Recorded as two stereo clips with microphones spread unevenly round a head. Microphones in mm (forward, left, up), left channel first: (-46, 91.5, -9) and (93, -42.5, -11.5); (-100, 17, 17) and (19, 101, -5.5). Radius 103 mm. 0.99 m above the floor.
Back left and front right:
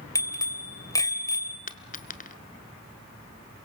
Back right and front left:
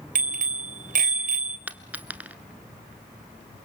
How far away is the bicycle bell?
About 3 m.